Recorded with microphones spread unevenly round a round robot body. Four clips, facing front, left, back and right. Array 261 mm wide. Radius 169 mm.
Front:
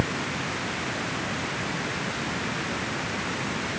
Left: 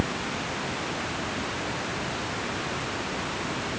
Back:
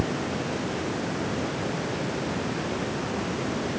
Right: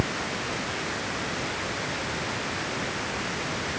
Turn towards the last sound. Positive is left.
No sound to turn to.